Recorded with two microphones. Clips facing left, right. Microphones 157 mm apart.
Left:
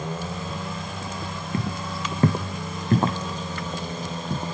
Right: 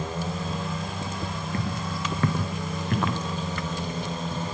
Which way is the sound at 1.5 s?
20° left (ahead or behind).